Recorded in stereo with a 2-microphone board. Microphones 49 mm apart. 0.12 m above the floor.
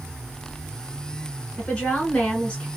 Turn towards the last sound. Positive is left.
turn(degrees=20)  # may be behind; listen again after turning